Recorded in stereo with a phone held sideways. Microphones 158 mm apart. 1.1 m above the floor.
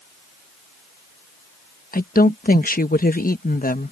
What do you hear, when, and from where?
1.9 s a woman speaking: 65° left (ahead or behind)